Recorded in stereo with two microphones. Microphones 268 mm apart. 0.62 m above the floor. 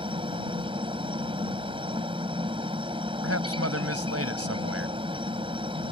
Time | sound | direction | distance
0.0 | a helicopter | 20° right (ahead or behind) | ?
3.2 | a man speaking | 60° right (ahead or behind) | ?